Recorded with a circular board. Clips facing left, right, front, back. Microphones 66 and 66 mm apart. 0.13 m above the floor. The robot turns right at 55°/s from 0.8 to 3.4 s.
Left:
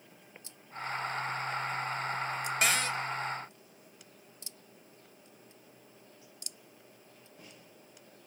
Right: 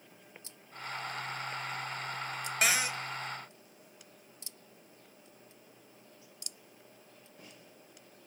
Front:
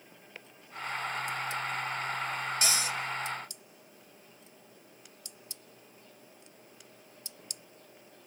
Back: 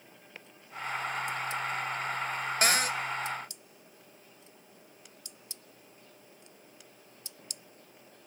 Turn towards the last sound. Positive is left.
turn(degrees=-135)